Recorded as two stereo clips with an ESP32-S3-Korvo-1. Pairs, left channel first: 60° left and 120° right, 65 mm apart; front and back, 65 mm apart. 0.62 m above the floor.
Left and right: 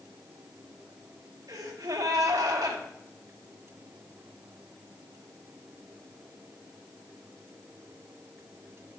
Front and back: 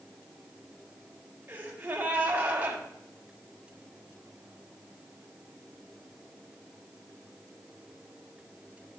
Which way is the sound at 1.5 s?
115° right.